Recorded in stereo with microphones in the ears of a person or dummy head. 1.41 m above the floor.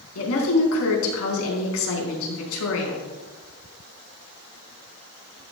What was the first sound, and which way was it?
A woman speaking, 85° left.